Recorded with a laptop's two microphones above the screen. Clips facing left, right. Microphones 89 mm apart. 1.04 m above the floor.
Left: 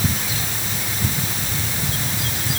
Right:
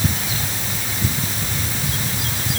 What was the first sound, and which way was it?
Only background noise.